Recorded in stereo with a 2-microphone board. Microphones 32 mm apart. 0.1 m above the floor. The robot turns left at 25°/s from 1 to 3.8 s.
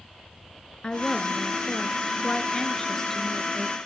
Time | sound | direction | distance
0.8 | a woman speaking | 30° left (ahead or behind) | 1.2 m